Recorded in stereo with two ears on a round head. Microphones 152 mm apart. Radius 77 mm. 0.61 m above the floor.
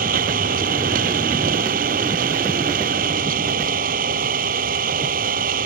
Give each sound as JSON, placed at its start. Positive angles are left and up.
{"t": 0.0, "sound": "an engine running", "side_deg": -50}